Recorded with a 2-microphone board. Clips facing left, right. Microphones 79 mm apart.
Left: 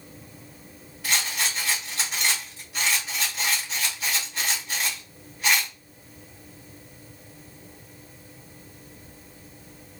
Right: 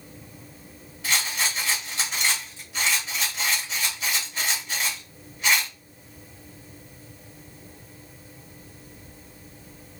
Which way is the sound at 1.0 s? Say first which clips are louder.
Right 1 dB; centre (ahead or behind).